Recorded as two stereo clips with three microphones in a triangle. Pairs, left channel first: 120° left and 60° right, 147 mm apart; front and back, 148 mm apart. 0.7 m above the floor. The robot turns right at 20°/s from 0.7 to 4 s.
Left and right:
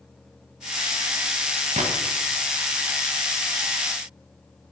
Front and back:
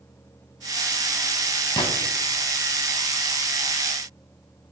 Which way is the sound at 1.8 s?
50° right.